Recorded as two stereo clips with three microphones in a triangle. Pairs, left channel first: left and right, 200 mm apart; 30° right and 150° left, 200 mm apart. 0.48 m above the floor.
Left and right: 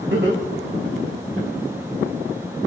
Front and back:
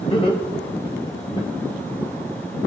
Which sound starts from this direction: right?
Laughter, at 0.1 s.